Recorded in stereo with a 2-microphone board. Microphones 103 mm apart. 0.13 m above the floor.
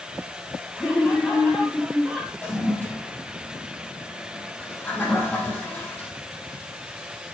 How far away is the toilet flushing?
About 4.5 m.